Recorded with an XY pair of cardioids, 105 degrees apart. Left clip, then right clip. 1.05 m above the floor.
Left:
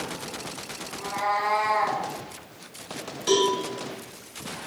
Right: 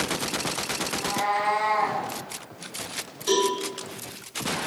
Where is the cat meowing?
25° left, 1.9 m; by 2.0 s 55° left, 1.3 m.